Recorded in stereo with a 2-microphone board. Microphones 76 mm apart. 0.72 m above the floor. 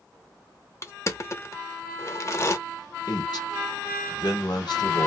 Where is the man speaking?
70° left (ahead or behind), 1.6 m.